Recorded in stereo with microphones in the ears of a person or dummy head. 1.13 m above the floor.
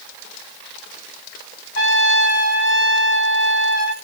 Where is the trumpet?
75° left (ahead or behind), 2 m.